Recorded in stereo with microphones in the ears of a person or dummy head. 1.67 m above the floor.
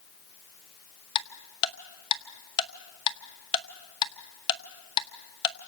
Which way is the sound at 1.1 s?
25° left (ahead or behind).